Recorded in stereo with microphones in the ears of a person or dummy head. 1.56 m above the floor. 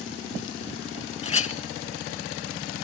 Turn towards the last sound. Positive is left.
turn(degrees=35)  # may be behind; listen again after turning